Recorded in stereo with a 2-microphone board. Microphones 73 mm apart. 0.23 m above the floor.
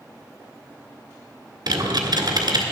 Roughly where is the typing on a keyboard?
Right.